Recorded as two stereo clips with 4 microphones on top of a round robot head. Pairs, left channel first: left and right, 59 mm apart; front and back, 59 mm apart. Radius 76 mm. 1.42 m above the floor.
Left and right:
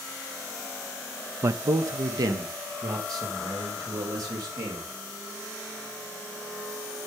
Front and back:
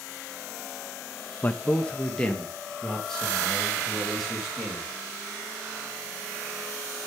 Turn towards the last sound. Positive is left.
turn(degrees=-80)